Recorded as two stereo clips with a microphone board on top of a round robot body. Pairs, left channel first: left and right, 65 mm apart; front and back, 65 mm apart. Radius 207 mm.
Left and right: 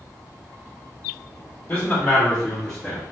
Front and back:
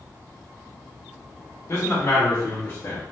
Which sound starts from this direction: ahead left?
A man speaking, at 1.7 s.